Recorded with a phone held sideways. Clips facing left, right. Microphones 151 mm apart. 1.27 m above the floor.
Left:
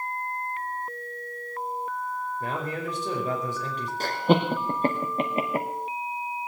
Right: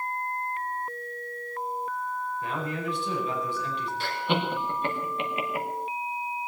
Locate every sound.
2.4 s a man speaking: 45° left (ahead or behind), 5 m
4.0 s laughter: 40° left (ahead or behind), 1.0 m